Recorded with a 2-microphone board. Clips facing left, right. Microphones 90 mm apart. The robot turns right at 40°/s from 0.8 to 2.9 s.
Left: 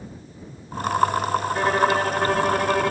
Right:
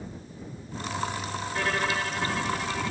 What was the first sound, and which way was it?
A violin, 30° left.